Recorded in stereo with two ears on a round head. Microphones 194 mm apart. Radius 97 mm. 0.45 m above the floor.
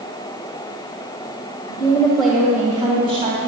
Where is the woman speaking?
25° left (ahead or behind), 2 m; by 3.4 s 35° right (ahead or behind), 3 m.